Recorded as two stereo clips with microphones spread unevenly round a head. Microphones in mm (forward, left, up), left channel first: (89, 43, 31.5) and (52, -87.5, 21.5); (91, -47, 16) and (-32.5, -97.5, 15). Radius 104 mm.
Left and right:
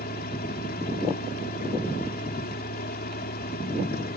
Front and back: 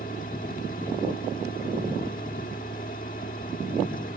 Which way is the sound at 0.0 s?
75° left.